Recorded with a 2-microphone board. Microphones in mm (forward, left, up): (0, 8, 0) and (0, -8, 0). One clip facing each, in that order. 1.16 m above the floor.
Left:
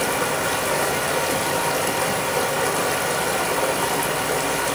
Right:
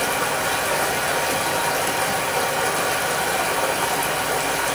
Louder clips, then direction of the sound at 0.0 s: Even; 5° left (ahead or behind).